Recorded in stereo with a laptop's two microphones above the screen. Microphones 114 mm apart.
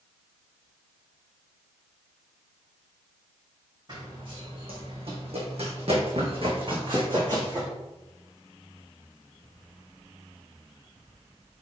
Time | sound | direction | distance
3.9 | running footsteps | 45° right (ahead or behind) | 3 m